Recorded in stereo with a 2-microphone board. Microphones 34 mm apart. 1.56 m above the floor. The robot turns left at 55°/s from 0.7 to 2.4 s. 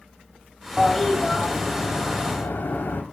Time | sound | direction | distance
0.8 | a toilet flushing | straight behind | 4 m